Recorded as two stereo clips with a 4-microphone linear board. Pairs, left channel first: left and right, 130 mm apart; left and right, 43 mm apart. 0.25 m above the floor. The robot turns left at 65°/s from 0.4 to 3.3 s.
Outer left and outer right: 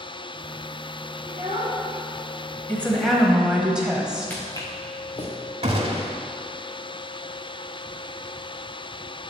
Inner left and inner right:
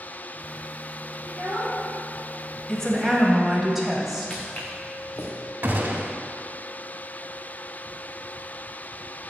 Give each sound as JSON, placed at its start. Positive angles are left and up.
{"t": 1.3, "sound": "a child speaking", "azimuth_deg": -115, "distance_m": 2.0}
{"t": 2.7, "sound": "a woman speaking", "azimuth_deg": 30, "distance_m": 1.2}
{"t": 4.3, "sound": "footsteps", "side_deg": 15, "distance_m": 1.3}
{"t": 5.6, "sound": "a gunshot", "side_deg": -50, "distance_m": 0.7}